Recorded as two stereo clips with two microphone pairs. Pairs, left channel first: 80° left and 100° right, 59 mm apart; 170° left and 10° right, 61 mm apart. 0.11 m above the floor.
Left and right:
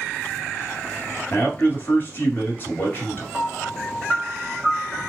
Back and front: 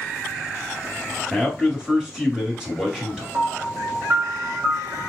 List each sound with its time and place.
1.3 s a man speaking: 65° left, 1.5 m
3.3 s a piano: 5° right, 1.3 m